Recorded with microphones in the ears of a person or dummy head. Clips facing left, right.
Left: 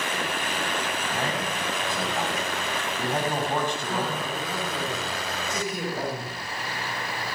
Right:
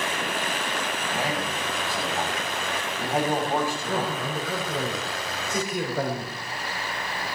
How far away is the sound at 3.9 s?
About 6.5 m.